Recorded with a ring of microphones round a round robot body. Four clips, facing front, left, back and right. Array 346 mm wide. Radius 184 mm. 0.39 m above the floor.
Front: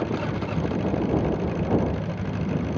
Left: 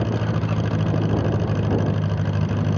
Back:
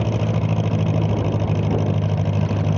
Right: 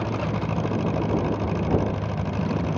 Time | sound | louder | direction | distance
0.0 | an engine running | left 2 dB, back 4 dB | 150° left | ?